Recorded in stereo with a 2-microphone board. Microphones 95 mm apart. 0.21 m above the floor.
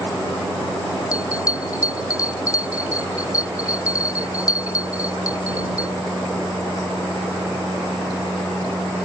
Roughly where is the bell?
Left.